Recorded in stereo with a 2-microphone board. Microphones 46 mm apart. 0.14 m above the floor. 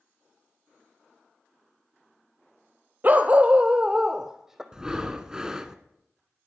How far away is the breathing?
About 1.0 m.